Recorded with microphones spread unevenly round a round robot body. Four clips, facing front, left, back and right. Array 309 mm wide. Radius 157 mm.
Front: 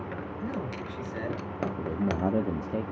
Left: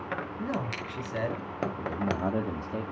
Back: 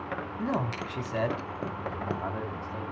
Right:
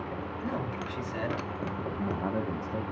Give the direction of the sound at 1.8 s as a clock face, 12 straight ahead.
12 o'clock.